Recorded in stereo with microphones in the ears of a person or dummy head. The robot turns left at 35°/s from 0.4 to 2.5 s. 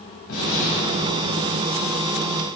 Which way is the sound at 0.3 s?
85° left.